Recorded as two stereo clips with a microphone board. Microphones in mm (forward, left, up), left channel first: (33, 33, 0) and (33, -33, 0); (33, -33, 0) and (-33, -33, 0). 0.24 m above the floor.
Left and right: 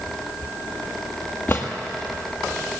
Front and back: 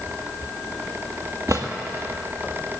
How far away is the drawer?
About 1.8 m.